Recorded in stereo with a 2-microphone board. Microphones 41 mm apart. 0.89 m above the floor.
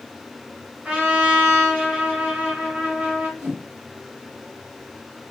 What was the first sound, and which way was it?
A trumpet, 35° right (ahead or behind).